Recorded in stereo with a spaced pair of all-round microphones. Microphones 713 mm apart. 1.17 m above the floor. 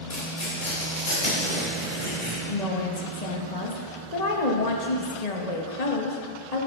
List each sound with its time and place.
0.1 s tearing paper: 60° left (ahead or behind), 2.5 m
2.5 s a woman speaking: 60° left (ahead or behind), 1.3 m